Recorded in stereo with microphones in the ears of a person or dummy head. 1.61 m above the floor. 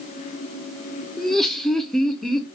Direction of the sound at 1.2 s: 5° left (ahead or behind).